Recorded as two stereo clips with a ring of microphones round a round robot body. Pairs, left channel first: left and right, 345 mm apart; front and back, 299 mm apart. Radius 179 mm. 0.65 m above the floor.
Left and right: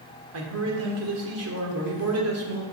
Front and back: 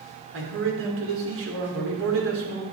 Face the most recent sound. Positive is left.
turn(degrees=-135)